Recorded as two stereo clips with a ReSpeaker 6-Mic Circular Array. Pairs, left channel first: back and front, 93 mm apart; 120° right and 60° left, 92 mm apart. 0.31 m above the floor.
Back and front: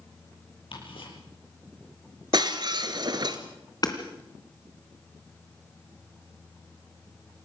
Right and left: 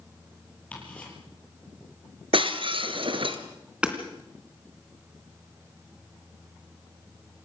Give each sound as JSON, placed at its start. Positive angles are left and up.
{"t": 0.7, "sound": "ticking", "azimuth_deg": 165, "distance_m": 7.5}
{"t": 2.3, "sound": "breaking glass", "azimuth_deg": 40, "distance_m": 1.7}
{"t": 3.8, "sound": "hammering", "azimuth_deg": 140, "distance_m": 3.0}